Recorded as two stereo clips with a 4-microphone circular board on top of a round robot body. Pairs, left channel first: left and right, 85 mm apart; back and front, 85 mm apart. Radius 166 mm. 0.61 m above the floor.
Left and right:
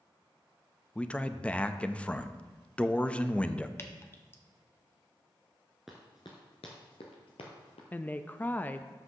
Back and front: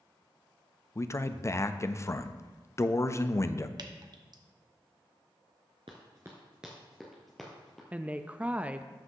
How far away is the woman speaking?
About 0.5 m.